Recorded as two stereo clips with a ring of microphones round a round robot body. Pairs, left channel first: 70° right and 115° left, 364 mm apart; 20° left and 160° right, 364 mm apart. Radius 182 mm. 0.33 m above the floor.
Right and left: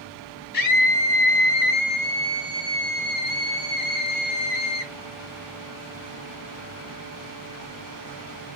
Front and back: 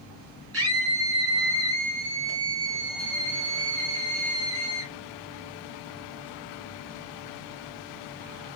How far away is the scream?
About 6.5 m.